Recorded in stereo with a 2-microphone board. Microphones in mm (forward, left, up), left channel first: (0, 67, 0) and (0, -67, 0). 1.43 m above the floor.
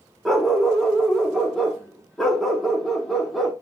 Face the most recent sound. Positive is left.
turn(degrees=0)  # may be behind; listen again after turning